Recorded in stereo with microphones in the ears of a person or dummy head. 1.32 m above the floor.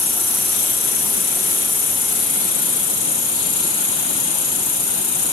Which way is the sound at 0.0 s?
30° left (ahead or behind).